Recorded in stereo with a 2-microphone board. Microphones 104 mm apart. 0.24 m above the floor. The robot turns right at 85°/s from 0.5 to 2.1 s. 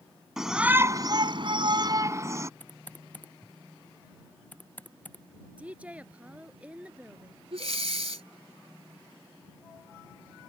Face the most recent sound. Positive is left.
turn(degrees=-90)